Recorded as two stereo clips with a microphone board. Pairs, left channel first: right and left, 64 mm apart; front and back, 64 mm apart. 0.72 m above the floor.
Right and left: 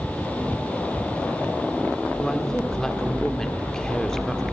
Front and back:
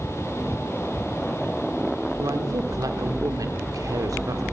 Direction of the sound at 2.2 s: 170° right.